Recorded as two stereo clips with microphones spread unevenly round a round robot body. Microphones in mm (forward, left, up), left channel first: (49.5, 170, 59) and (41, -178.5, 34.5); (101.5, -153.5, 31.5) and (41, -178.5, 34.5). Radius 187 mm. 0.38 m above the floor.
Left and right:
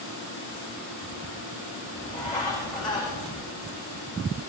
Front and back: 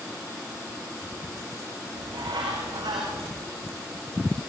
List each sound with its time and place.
1.9 s a bird: 165° left, 8 m